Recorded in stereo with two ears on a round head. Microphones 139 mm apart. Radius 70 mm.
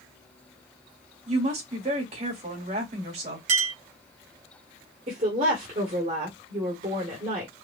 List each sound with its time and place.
1.3 s a woman speaking: 45° right (ahead or behind), 2 m
3.5 s a clink: 45° right (ahead or behind), 1.5 m
5.1 s a woman speaking: 45° right (ahead or behind), 1.6 m